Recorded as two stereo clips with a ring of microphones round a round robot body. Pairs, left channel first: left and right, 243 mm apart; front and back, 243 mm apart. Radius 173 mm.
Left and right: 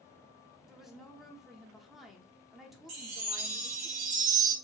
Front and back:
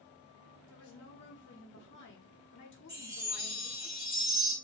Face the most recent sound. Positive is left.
turn(degrees=-100)